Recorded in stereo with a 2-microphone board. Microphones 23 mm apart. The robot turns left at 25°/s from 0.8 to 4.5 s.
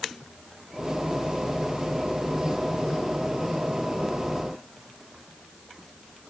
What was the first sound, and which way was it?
Only background noise.